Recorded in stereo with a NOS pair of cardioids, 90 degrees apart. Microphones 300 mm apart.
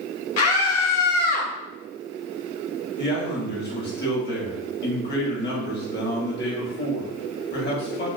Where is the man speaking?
35° left, 1.0 m.